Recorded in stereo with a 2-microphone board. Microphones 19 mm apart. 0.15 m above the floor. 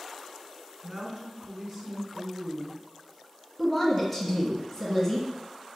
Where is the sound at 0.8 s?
20° right (ahead or behind), 1.3 m.